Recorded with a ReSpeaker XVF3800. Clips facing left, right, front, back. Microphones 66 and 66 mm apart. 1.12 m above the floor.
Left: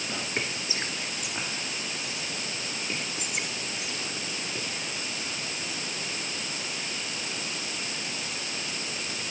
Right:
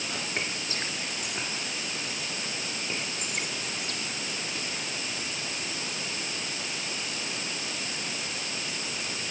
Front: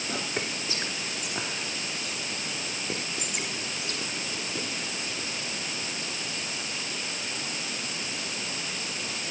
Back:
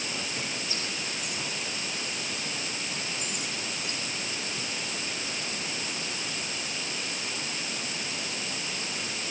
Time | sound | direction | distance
0.1 | whispering | 5° left | 2.5 m